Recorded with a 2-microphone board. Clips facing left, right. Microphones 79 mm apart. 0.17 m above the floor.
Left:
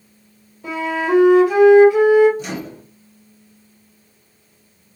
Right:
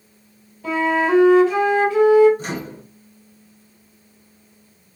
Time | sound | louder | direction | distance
0.6 | a flute | right 2 dB | 15° left (ahead or behind) | 2 m
2.4 | a microwave | even | 40° right (ahead or behind) | 1.9 m